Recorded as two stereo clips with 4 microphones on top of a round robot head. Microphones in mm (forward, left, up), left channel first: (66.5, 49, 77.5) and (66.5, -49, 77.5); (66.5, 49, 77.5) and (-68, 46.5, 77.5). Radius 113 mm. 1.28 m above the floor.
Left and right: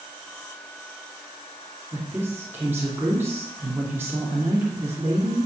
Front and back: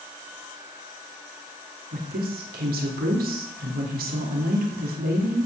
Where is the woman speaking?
165° right, 2.5 m.